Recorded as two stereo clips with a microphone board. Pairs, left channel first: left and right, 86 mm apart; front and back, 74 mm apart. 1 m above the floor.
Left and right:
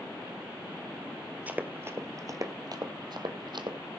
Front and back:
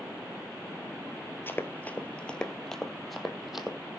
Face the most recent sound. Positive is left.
turn(degrees=-95)